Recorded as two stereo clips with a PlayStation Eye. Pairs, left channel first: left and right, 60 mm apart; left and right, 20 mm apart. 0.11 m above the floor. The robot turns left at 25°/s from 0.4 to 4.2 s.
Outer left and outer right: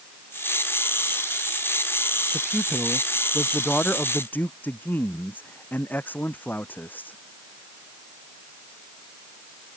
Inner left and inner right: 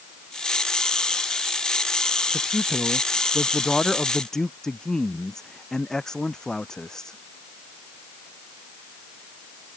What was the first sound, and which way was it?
A man speaking, 160° right.